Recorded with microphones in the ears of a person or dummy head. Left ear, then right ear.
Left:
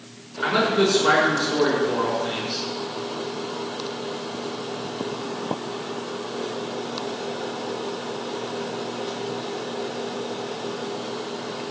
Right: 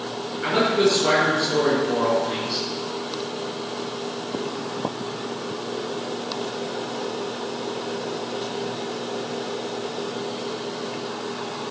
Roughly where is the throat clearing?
No throat clearing in this recording.